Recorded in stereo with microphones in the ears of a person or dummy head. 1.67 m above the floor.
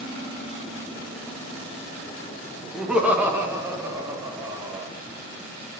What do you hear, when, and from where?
2.7 s laughter: centre (ahead or behind), 1.8 m; by 4.9 s 25° right (ahead or behind), 4 m